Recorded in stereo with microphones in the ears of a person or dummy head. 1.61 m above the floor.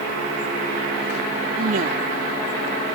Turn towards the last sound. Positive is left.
turn(degrees=-50)  # may be behind; listen again after turning